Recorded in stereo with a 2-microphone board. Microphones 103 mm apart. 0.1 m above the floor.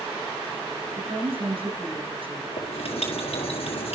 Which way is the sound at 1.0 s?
60° right (ahead or behind).